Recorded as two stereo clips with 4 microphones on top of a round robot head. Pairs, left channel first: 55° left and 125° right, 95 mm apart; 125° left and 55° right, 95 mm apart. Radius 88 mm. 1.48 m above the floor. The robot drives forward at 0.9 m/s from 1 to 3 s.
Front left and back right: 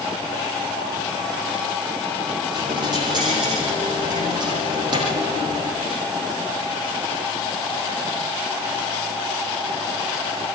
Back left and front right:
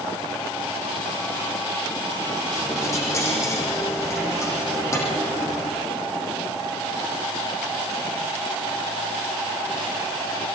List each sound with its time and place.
2.5 s a dropped coin: 170° right, 8 m